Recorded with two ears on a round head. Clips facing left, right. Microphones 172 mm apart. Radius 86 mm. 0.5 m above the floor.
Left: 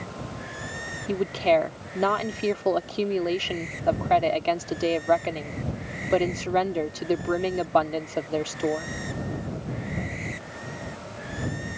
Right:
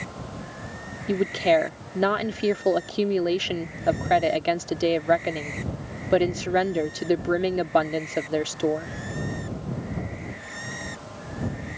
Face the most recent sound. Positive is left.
turn(degrees=-15)  # may be behind; listen again after turning